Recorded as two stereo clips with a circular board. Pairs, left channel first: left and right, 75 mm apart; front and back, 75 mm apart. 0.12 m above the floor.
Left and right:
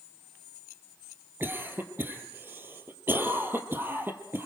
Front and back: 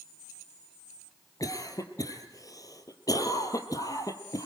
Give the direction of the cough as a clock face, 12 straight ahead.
1 o'clock.